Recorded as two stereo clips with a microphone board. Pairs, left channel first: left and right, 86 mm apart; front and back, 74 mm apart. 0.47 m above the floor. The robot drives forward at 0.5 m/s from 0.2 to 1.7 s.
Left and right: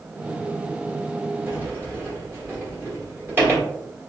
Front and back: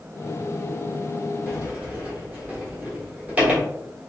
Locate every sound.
1.5 s a sliding door: 125° right, 1.2 m; by 3.6 s 130° right, 1.2 m